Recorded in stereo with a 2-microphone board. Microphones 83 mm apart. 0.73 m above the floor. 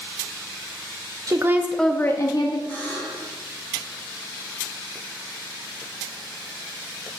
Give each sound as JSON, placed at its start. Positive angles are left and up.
{"t": 1.3, "sound": "a woman speaking", "side_deg": -40, "distance_m": 0.7}
{"t": 2.7, "sound": "a buzzer", "side_deg": 20, "distance_m": 4.0}